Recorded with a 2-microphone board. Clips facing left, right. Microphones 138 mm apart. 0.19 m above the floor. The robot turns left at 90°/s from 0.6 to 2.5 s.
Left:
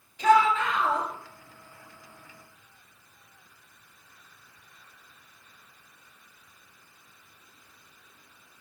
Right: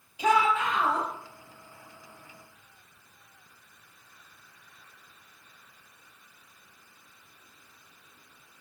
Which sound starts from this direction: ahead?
A shout, at 0.2 s.